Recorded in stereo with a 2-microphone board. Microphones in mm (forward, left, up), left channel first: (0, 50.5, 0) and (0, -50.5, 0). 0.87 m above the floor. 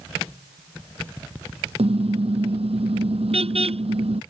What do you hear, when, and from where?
1.8 s a car horn: 75° right (ahead or behind)